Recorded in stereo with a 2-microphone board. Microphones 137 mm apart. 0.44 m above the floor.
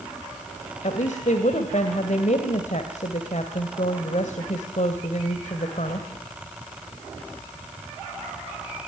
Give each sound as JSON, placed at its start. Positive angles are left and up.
{"t": 0.8, "sound": "a woman speaking", "side_deg": 60, "distance_m": 2.0}